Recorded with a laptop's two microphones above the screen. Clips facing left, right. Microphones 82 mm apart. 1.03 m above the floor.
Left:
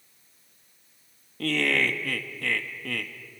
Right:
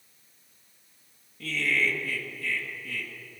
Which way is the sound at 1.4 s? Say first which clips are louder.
Left 3 dB; 70° left (ahead or behind).